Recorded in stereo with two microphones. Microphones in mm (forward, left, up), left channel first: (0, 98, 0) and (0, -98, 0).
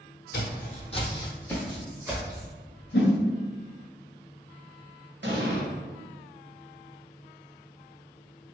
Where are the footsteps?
55° left (ahead or behind), 0.9 m; by 2.5 s 20° right (ahead or behind), 1.3 m.